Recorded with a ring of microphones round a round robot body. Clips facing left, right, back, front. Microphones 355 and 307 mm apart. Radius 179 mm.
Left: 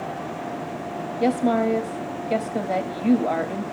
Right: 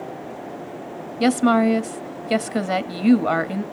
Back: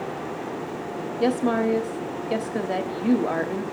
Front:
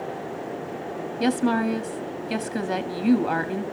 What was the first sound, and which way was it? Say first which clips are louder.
A woman speaking: right 4 dB, even; 65° right.